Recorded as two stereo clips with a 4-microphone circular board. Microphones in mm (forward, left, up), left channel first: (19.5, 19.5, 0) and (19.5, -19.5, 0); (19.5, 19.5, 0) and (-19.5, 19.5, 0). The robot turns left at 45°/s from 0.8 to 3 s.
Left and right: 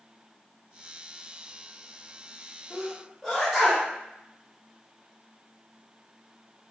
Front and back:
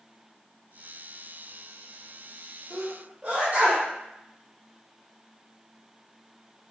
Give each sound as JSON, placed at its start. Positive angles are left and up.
{"t": 2.7, "sound": "a sneeze", "azimuth_deg": -165, "distance_m": 1.0}